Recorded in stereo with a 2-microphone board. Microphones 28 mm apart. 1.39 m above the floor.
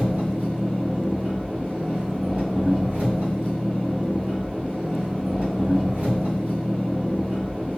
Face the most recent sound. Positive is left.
turn(degrees=-45)  # may be behind; listen again after turning